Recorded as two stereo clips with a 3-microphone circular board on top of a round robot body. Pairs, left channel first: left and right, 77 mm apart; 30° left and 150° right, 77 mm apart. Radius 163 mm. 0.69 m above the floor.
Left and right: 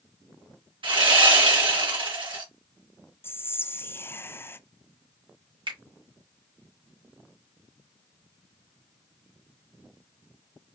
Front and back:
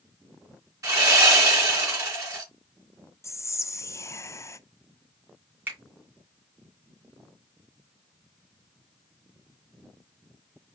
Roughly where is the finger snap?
Right.